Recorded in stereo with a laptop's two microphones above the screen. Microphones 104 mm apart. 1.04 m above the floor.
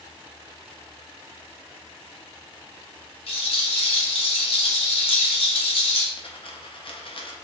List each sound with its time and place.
3.3 s a rattle: 65° left (ahead or behind), 1.3 m
6.2 s a dropped coin: 55° left (ahead or behind), 0.6 m